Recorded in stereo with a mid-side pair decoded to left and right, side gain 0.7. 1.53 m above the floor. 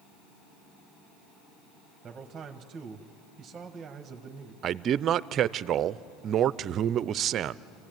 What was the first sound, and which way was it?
A man speaking, 25° right.